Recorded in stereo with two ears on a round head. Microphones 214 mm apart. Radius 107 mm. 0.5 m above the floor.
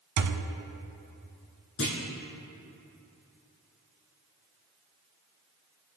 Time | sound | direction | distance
0.2 | a thud | 70° right (ahead or behind) | 0.9 m
1.8 | a clunk | 60° left (ahead or behind) | 3.5 m